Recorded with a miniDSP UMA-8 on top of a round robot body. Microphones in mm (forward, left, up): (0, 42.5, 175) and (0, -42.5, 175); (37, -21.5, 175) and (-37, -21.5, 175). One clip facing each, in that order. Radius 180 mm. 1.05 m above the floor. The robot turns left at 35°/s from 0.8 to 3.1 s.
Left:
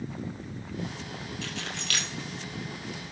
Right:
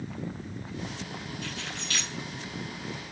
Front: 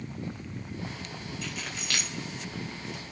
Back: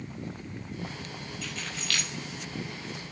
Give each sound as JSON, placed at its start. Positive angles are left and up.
{"t": 1.4, "sound": "keys jangling", "azimuth_deg": 90, "distance_m": 4.0}